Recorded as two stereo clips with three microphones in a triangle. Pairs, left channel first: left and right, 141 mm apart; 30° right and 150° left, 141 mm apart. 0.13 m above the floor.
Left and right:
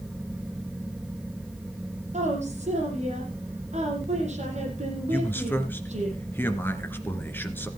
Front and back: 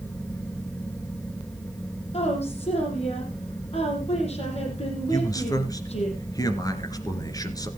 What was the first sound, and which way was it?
A woman speaking, 65° right.